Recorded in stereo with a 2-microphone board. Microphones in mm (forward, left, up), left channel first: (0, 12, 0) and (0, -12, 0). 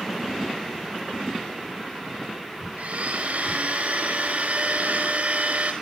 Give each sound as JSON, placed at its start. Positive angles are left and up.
{"t": 2.8, "sound": "a blender", "side_deg": -65, "distance_m": 4.5}